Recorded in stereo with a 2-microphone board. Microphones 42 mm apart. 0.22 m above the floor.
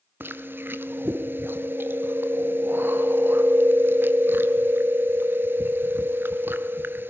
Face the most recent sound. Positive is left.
turn(degrees=-60)  # may be behind; listen again after turning